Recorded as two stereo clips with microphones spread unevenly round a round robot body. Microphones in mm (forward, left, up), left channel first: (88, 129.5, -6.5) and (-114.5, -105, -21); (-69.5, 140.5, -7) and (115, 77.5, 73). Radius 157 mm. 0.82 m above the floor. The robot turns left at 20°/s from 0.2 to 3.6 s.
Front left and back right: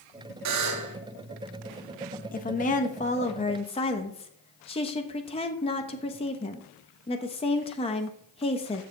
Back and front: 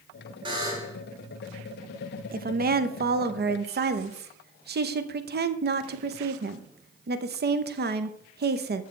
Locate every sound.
0.5 s a buzzer: 100° right, 1.7 m; by 1.0 s 110° right, 1.7 m
2.3 s a woman speaking: 20° left, 1.0 m; by 8.8 s 5° right, 1.0 m